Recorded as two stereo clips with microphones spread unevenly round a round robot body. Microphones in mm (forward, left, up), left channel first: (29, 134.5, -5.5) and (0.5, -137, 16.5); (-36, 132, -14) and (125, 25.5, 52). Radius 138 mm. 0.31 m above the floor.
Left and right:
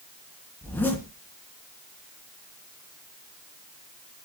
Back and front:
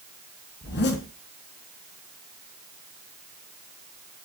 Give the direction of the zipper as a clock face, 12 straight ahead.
6 o'clock.